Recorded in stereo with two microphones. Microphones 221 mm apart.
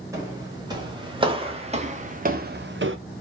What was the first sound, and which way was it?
Footsteps, 15° right (ahead or behind).